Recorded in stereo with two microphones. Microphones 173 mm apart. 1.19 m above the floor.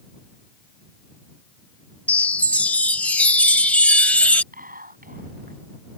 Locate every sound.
2.1 s a chime: 10° left (ahead or behind)
4.5 s whispering: 55° right (ahead or behind)